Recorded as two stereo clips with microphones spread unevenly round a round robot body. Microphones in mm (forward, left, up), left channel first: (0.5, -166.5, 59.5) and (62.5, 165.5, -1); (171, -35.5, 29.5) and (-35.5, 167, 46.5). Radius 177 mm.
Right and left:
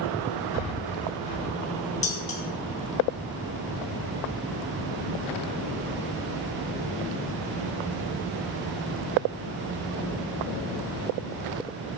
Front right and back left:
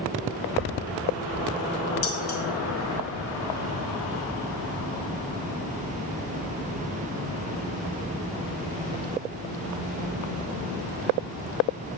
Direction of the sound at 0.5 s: 100° right.